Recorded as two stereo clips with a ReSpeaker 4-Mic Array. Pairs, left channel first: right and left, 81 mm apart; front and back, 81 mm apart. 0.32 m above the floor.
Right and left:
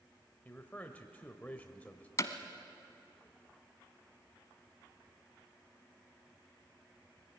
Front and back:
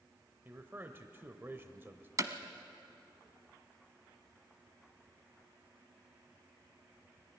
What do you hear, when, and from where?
0.5 s a man speaking: 145° right, 1.0 m
2.2 s hammering: 135° right, 1.1 m